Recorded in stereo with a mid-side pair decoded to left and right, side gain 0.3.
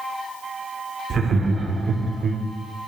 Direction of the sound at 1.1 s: 70° right.